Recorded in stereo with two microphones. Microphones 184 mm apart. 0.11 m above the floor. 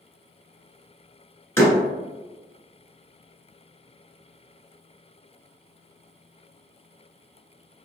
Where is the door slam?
15° left (ahead or behind), 1.0 m.